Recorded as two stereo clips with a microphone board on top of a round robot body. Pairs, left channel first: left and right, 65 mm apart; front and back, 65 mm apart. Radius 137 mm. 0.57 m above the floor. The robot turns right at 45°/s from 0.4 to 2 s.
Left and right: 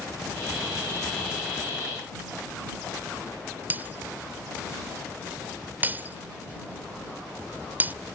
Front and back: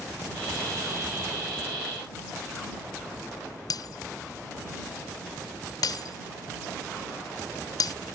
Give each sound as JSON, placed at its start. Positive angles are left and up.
{"t": 3.7, "sound": "breaking glass", "azimuth_deg": -25}